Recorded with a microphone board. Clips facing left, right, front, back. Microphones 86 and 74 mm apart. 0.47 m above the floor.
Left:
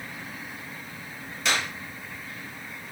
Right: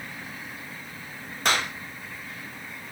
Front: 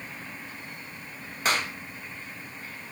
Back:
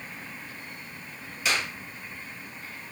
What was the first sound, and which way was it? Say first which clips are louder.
A clap: right 2 dB, front 2 dB; 50° right.